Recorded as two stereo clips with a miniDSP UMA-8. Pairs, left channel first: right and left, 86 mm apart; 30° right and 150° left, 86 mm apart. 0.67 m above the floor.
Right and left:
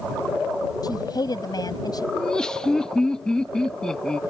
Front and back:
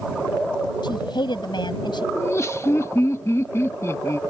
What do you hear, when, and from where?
0.8 s a woman speaking: 55° right
2.1 s laughter: 15° right